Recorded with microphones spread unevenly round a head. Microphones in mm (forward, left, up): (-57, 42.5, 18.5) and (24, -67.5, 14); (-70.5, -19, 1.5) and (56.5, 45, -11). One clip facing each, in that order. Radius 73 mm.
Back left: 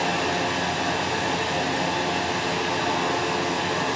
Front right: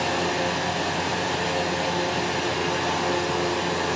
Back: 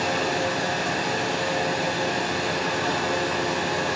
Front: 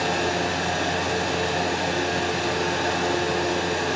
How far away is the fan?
About 0.7 m.